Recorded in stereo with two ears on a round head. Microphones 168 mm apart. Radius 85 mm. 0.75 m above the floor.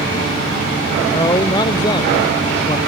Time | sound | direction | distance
1.1 | a man speaking | 20° left (ahead or behind) | ?